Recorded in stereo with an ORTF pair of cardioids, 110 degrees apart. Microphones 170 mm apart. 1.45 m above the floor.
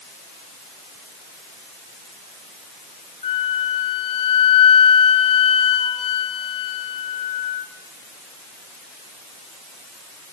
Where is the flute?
35° left, 1.9 m.